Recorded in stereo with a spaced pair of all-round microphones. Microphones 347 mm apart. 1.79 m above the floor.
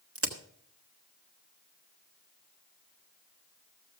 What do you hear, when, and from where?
0.1 s a crack: 40° right (ahead or behind), 1.6 m